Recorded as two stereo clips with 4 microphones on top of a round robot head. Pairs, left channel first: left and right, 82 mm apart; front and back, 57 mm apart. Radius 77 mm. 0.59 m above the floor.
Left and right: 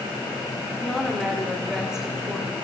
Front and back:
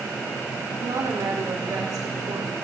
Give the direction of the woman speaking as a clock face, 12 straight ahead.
6 o'clock.